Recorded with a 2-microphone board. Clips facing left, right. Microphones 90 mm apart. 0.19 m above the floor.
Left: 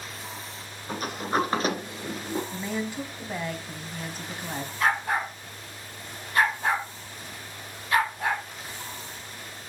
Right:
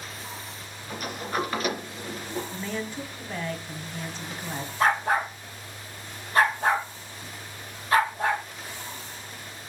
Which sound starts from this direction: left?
A sliding door, at 0.9 s.